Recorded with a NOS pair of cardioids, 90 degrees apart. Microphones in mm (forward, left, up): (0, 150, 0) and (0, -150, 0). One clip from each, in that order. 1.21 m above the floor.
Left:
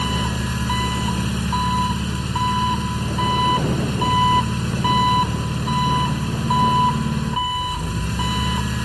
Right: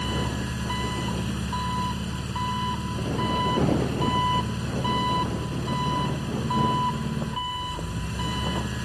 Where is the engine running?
50° left.